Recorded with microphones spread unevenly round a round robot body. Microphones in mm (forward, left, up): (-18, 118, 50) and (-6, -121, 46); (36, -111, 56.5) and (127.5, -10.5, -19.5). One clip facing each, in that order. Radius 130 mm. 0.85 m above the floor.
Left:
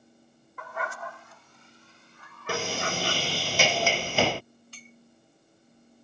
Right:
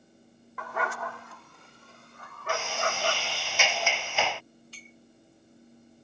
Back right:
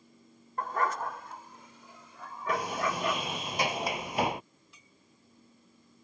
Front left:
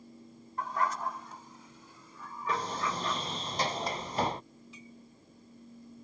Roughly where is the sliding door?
Behind left.